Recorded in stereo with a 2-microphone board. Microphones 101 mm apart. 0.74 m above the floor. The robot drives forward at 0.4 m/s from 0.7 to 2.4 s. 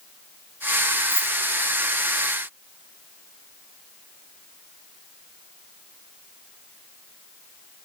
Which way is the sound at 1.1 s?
40° left (ahead or behind).